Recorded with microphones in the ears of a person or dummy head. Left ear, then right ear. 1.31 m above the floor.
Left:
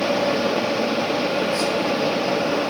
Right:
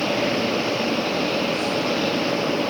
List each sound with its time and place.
0.0 s a fan: 55° left (ahead or behind), 1.2 m